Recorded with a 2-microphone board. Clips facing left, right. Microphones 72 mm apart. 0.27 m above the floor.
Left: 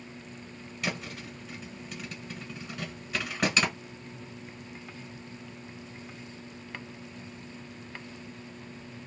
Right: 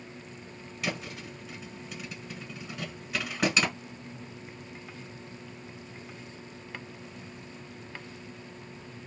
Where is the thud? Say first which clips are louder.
Even; centre (ahead or behind), 1.2 m.